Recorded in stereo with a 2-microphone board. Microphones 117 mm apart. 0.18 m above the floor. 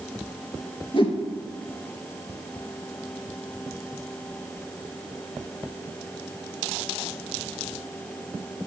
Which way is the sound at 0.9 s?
50° left (ahead or behind).